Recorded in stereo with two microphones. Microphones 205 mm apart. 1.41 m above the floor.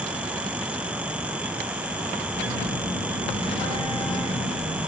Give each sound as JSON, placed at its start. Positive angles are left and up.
{"t": 2.3, "sound": "a phone buzzing", "side_deg": 30, "distance_m": 4.5}